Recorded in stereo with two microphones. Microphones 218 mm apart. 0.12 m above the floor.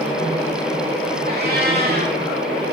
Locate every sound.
1.3 s a cat meowing: 45° right (ahead or behind), 6 m